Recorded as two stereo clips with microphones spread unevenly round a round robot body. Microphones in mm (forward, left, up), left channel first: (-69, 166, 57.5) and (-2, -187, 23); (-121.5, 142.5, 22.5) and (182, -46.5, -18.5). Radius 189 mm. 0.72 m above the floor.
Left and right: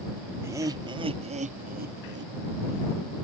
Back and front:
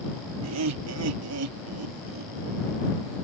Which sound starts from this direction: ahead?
Laughter, at 0.4 s.